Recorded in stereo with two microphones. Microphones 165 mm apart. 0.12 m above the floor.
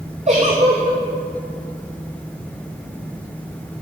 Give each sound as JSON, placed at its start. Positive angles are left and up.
{"t": 0.3, "sound": "a giggle", "side_deg": -45, "distance_m": 3.0}